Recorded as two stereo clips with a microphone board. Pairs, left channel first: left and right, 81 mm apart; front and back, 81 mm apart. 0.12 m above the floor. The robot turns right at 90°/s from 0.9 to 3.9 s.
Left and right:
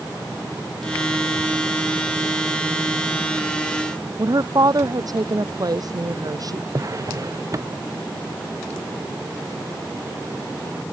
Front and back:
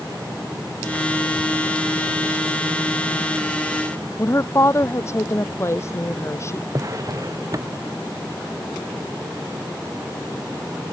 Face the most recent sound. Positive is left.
turn(degrees=-135)